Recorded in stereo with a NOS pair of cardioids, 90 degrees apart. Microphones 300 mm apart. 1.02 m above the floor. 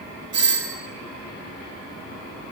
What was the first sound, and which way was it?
A doorbell, 40° right.